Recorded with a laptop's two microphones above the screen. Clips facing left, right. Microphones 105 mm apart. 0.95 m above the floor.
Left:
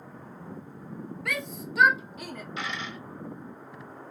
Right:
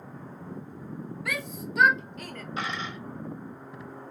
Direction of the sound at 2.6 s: 40° right (ahead or behind).